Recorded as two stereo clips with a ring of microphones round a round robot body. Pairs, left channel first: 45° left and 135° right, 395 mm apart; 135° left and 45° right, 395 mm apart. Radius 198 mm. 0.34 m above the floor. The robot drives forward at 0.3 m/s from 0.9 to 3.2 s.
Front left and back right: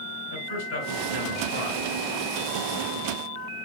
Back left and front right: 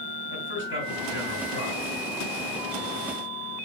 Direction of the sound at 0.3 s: 75° left.